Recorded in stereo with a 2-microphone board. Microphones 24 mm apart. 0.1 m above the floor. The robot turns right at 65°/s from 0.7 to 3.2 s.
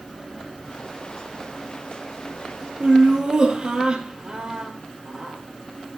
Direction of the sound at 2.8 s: 50° right (ahead or behind).